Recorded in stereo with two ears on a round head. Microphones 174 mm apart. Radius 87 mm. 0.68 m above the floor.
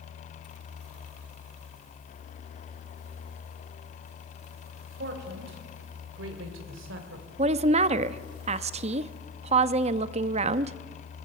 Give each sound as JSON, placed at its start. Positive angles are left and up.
{"t": 4.9, "sound": "a man speaking", "side_deg": -55, "distance_m": 4.0}
{"t": 7.4, "sound": "a woman speaking", "side_deg": -35, "distance_m": 0.7}